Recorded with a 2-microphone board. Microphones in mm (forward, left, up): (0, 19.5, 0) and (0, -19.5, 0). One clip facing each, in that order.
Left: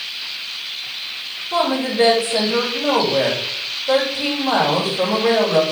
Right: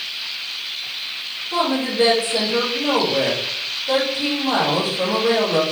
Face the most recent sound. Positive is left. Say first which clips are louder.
# left 2 dB
turn(degrees=20)  # may be behind; listen again after turning